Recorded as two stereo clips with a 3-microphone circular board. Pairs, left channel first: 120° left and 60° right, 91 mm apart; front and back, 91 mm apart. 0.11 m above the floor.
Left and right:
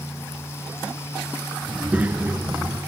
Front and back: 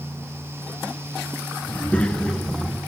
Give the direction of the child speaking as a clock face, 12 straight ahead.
12 o'clock.